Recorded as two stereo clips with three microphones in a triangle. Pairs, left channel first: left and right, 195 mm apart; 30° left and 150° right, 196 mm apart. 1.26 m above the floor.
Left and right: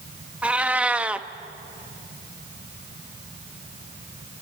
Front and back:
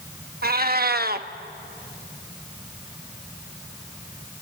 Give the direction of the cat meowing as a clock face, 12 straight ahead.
6 o'clock.